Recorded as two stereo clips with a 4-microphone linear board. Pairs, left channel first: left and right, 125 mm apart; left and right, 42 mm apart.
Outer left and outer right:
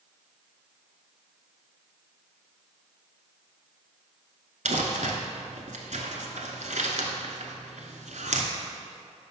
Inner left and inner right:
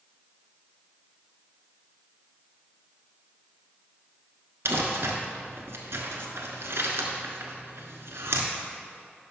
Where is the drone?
I don't hear a drone.